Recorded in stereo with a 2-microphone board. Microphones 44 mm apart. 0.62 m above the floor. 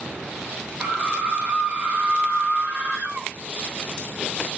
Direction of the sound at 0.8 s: 15° right (ahead or behind).